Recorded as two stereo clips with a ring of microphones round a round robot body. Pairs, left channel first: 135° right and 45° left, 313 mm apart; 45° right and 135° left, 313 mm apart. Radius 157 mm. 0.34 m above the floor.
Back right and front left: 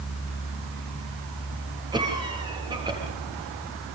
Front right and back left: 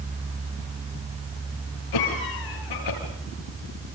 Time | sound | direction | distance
1.9 | a cough | 30° right | 7.5 m